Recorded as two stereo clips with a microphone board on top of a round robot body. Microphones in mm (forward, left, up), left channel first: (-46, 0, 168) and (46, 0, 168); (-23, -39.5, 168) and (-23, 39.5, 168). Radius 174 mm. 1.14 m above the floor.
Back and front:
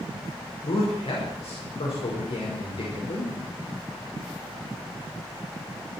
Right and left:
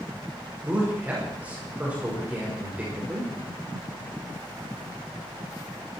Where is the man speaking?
160° left, 5 m.